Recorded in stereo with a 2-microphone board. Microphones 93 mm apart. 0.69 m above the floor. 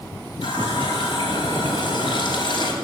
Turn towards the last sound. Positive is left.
turn(degrees=60)  # may be behind; listen again after turning